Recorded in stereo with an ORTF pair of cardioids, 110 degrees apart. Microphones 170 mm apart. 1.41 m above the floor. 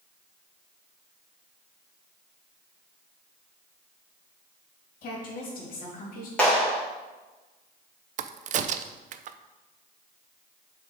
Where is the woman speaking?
60° left, 3 m.